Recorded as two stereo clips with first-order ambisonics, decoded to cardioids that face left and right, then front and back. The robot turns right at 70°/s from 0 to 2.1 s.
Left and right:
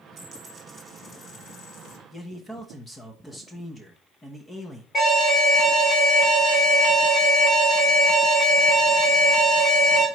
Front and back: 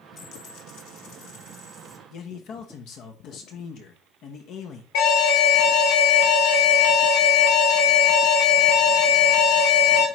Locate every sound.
0.2 s a dropped coin: 40° right, 1.1 m; by 2.0 s 85° left, 1.1 m
2.1 s a man speaking: 15° left, 1.0 m
4.9 s an alarm: 15° left, 2 m